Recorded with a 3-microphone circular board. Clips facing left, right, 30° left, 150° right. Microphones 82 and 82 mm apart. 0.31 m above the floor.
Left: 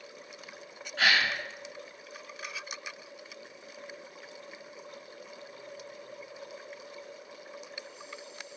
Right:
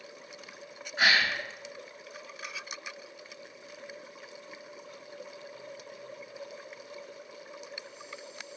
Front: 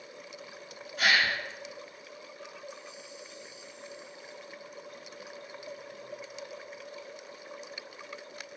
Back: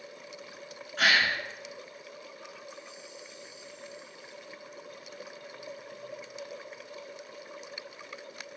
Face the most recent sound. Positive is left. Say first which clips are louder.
# right 1 dB, back 1 dB
turn(degrees=-160)